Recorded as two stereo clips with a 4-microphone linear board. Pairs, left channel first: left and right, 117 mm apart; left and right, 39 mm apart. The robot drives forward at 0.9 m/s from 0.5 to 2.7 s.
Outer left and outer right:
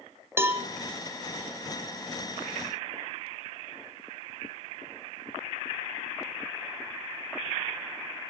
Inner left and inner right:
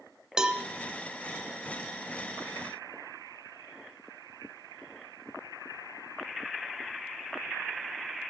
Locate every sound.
0.4 s a cowbell: 20° right (ahead or behind), 1.1 m; by 0.7 s 25° right (ahead or behind), 0.9 m